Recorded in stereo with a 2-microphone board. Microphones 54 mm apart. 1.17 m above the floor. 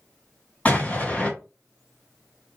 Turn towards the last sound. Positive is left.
turn(degrees=25)  # may be behind; listen again after turning